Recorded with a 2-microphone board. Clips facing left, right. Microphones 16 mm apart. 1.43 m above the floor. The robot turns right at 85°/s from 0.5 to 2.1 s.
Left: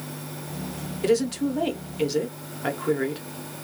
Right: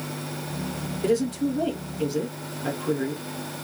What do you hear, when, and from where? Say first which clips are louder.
1.0 s a woman speaking: left 1 dB; 35° left, 1.3 m; by 3.2 s 125° left, 1.3 m